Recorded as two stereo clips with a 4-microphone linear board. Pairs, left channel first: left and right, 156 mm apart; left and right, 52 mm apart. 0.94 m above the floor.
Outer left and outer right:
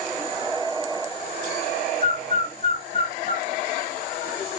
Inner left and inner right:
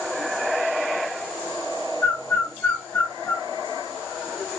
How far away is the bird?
About 1.1 m.